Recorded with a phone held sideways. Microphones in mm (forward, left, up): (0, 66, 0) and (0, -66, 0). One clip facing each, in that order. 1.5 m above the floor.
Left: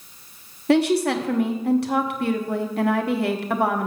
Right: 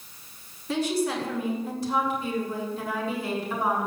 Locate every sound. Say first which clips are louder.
0.7 s a woman speaking: left 8 dB; 65° left (ahead or behind), 1.2 m